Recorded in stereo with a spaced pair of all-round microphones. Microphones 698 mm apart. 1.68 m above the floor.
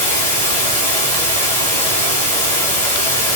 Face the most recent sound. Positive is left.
turn(degrees=-70)  # may be behind; listen again after turning